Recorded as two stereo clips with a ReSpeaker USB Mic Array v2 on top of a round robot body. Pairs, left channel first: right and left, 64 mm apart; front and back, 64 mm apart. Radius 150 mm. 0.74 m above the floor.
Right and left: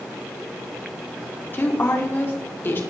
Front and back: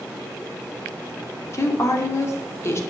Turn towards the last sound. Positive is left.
turn(degrees=-40)